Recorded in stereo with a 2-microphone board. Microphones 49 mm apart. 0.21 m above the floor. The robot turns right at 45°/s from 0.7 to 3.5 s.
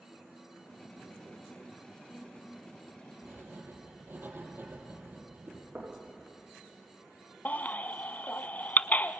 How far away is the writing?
About 5.5 m.